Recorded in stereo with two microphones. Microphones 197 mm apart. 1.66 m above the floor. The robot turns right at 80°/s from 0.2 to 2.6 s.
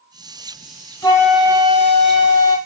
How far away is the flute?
About 1.1 m.